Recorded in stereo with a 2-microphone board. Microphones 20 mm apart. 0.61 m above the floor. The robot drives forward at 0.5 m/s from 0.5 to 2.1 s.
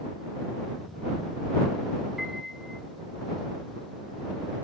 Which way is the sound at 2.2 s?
20° right (ahead or behind).